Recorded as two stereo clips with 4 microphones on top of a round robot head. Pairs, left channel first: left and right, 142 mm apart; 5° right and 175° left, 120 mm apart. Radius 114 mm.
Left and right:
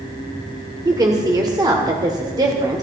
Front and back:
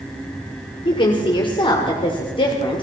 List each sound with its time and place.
0.8 s a woman speaking: 35° right, 1.8 m